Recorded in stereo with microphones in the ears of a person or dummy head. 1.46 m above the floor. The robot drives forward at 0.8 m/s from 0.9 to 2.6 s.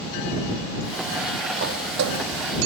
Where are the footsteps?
55° right (ahead or behind), 3 m; by 2.3 s 60° right (ahead or behind), 3 m.